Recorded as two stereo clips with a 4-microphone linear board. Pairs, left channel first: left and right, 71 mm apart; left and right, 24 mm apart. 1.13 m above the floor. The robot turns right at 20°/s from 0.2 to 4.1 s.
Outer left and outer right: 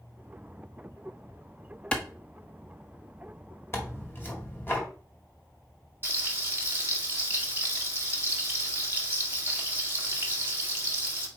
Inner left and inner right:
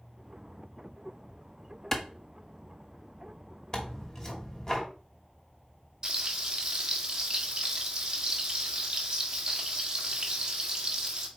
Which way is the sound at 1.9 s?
15° left (ahead or behind).